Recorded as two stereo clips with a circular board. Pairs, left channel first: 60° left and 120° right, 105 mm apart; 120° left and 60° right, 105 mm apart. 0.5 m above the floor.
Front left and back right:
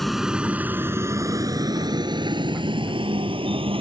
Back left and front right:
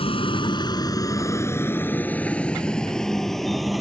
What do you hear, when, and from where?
0.0 s a vehicle: 150° left; by 3.8 s 150° right